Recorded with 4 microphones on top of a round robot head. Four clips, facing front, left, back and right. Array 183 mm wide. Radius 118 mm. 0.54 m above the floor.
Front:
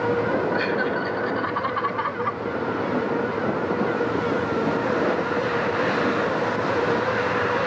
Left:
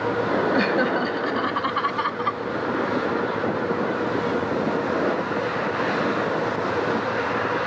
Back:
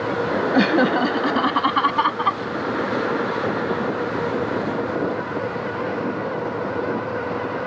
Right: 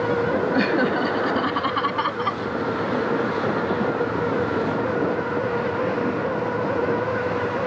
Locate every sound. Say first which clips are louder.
0.5 s laughter: right 1 dB, back 6 dB; straight behind; by 2.4 s 165° right